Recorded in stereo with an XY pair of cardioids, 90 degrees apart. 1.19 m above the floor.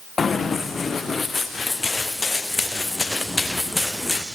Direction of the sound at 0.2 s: 40° left.